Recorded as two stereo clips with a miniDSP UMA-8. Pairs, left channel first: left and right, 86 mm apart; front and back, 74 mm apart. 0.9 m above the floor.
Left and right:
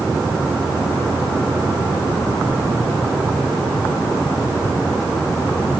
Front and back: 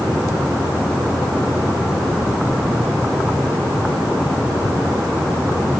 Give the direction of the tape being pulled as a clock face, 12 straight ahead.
No tape being pulled in this recording.